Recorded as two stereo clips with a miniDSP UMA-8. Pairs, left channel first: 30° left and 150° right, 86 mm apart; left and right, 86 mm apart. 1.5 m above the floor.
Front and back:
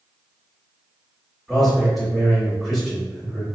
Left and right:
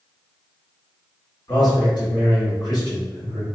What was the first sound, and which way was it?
A man speaking, 120° left.